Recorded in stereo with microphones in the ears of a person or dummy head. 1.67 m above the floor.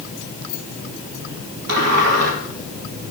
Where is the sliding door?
60° right (ahead or behind), 3 m.